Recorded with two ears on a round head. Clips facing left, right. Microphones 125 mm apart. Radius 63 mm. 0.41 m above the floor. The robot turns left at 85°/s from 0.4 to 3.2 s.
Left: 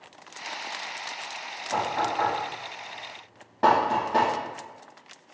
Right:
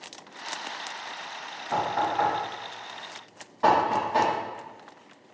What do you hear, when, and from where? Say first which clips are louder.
1.7 s knocking: right 1 dB; 50° right (ahead or behind), 1.8 m; by 4.3 s 65° left (ahead or behind), 1.8 m